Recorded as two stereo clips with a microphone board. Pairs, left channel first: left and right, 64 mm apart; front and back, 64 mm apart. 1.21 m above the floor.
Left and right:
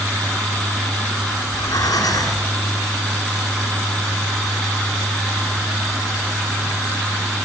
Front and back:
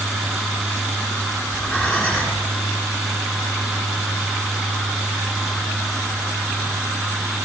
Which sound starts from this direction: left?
Breathing, at 1.4 s.